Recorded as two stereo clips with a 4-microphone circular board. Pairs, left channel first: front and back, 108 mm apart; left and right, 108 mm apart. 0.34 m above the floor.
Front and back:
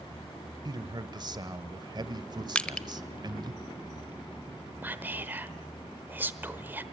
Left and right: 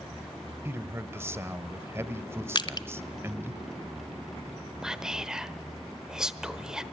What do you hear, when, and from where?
0.7 s a man speaking: 150° right, 1.2 m
2.5 s crushing: 75° left, 0.9 m
4.8 s whispering: 165° right, 1.0 m